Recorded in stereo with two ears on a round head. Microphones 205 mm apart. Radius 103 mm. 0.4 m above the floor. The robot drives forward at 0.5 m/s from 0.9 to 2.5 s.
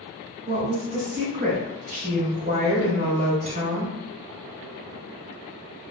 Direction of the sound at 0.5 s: 35° right (ahead or behind).